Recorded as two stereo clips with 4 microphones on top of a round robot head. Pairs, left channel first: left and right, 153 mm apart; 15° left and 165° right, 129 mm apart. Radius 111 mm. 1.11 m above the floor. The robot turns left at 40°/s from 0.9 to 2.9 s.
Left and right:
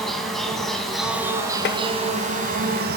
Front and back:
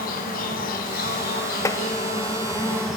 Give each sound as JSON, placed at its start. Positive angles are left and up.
{"t": 0.0, "sound": "an insect", "azimuth_deg": 0, "distance_m": 2.0}
{"t": 1.6, "sound": "tapping", "azimuth_deg": 80, "distance_m": 0.6}